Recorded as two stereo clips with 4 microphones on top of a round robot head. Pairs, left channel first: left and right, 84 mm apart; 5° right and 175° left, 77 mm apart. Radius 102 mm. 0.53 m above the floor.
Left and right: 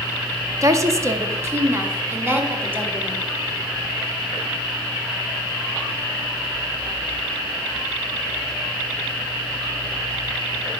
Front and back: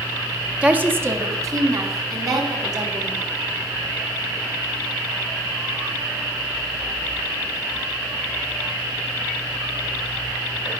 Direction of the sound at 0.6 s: 120° right.